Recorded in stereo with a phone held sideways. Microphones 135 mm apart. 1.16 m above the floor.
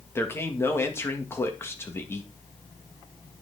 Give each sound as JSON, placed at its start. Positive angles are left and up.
{"t": 0.1, "sound": "a man speaking", "side_deg": 20, "distance_m": 1.9}